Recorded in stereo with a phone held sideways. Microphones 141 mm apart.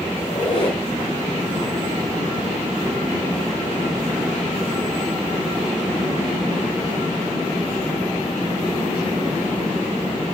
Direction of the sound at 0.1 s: 40° left (ahead or behind).